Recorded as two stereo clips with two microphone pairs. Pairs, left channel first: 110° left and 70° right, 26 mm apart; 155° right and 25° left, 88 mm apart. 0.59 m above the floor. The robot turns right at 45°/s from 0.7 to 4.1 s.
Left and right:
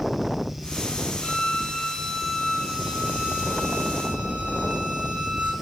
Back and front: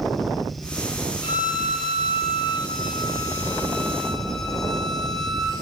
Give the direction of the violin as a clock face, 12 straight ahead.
7 o'clock.